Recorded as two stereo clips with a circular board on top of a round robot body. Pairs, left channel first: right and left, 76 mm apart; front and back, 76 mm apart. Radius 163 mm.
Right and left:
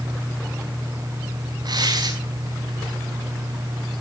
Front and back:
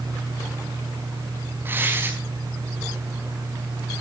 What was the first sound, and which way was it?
Tearing paper, 120° left.